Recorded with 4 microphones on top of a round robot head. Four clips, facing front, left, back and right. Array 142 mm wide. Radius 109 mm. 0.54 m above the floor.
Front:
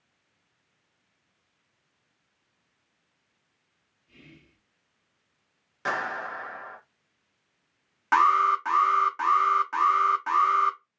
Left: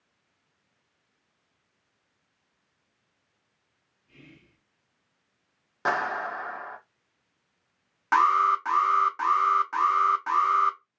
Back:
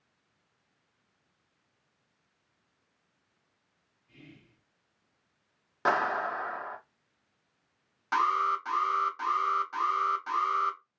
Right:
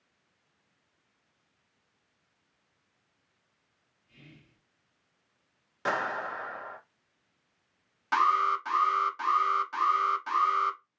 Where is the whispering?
60° left, 1.5 m.